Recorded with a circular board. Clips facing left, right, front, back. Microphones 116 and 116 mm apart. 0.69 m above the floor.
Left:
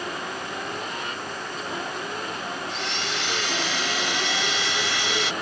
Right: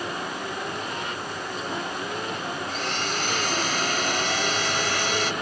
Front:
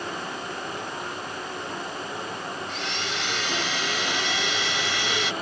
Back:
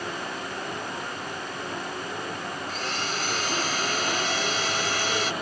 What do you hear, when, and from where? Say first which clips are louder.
2.7 s a blender: right 2 dB, back 1 dB; 135° right